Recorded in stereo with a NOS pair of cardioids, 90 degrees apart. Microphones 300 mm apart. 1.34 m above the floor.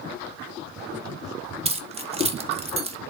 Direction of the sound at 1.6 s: 20° right.